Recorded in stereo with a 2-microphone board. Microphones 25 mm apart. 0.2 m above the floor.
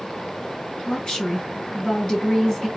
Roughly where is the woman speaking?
Left.